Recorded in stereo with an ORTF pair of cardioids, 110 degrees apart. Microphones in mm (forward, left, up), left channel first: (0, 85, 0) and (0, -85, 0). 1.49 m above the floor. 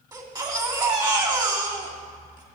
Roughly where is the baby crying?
Ahead right.